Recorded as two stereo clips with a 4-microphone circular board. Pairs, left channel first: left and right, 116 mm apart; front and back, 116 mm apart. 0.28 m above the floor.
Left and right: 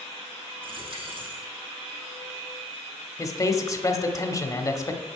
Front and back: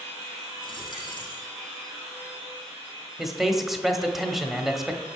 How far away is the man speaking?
About 1.2 m.